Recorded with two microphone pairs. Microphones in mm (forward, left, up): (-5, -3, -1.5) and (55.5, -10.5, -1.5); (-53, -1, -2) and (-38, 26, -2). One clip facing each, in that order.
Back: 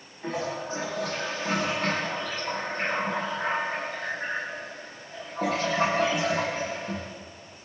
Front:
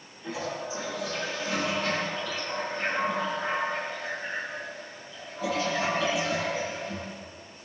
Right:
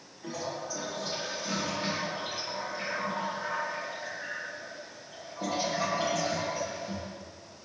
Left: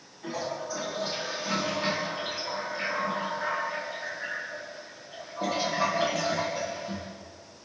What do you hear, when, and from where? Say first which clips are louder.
0.2 s a toilet flushing: back 3 dB, left 3 dB; 135° left, 10 m